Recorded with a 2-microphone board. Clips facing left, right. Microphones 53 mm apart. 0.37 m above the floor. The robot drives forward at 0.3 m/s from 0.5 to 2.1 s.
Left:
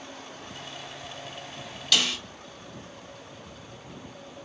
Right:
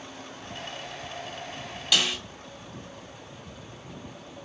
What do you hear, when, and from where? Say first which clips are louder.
1.9 s a snare drum: even; 15° right (ahead or behind), 1.4 m